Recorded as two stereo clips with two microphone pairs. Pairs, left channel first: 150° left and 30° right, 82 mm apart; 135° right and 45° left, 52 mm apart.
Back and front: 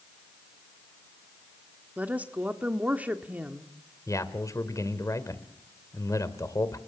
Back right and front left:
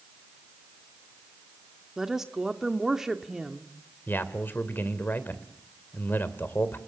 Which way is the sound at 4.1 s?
175° right.